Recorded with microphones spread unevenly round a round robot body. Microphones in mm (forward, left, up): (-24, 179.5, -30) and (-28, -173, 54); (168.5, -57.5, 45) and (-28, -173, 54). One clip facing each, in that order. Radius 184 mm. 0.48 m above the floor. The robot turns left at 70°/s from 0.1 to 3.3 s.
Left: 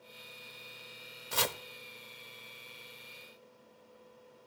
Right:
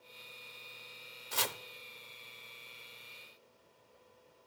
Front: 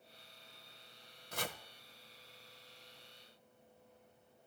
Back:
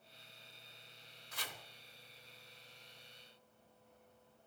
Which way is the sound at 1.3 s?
90° left.